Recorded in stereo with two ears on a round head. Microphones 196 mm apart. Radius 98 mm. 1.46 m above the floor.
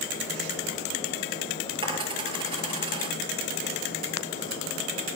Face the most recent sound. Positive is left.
turn(degrees=-25)  # may be behind; listen again after turning